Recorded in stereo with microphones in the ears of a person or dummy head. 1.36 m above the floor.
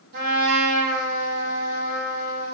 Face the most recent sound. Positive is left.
turn(degrees=-50)  # may be behind; listen again after turning